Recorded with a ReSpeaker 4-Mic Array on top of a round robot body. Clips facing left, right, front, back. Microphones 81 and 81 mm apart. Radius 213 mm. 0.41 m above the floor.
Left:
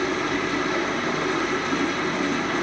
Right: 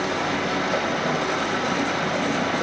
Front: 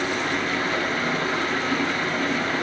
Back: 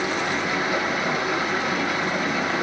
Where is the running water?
105° right, 2.5 m.